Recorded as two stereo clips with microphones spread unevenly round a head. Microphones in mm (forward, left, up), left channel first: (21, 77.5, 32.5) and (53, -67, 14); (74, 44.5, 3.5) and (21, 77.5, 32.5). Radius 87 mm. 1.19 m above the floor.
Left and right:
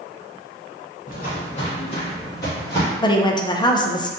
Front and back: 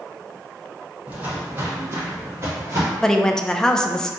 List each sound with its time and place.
1.1 s footsteps: 110° left, 1.9 m; by 2.9 s 175° left, 2.5 m
3.0 s a woman speaking: 40° left, 0.6 m